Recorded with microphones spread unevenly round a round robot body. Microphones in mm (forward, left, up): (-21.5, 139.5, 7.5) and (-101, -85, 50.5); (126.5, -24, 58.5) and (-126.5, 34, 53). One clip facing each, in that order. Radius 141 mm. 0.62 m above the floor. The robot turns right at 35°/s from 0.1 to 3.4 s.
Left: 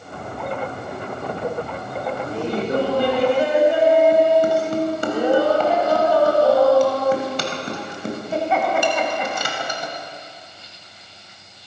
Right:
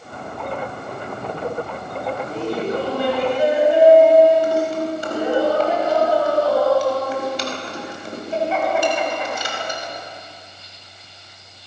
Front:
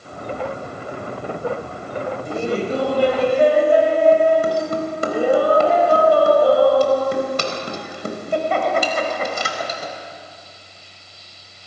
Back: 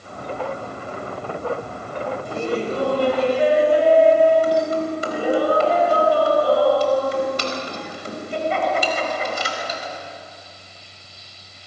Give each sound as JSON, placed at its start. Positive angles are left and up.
{"t": 2.2, "sound": "laughter", "azimuth_deg": -10, "distance_m": 4.5}